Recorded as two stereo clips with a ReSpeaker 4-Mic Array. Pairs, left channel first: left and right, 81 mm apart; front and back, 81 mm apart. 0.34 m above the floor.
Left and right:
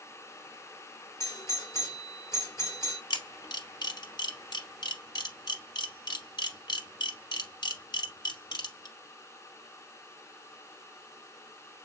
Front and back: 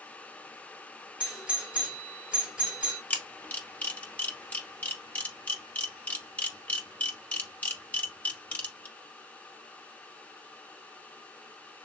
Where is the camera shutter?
70° left, 1.1 m.